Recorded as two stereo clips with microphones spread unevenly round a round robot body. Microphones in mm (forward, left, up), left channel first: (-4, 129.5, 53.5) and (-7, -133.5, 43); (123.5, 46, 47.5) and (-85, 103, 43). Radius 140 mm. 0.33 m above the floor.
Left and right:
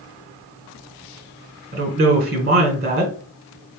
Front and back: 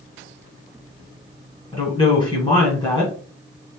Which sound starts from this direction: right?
A woman speaking, at 1.7 s.